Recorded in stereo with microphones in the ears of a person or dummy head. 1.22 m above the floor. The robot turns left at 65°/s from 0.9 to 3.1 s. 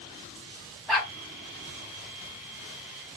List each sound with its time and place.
0.9 s a dog barking: centre (ahead or behind), 0.6 m; by 1.1 s 5° left (ahead or behind), 0.6 m